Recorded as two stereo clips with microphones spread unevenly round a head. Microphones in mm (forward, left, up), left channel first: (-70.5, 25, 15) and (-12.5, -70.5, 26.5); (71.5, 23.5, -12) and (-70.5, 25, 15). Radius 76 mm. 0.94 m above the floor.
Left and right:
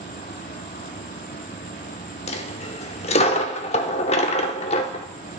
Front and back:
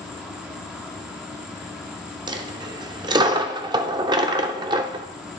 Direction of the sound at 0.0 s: 95° left.